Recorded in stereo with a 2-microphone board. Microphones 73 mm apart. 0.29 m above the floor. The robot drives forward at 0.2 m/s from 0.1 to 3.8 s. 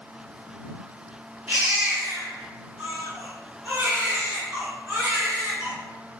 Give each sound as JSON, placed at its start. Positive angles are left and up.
{"t": 1.5, "sound": "a baby crying", "side_deg": -15, "distance_m": 1.7}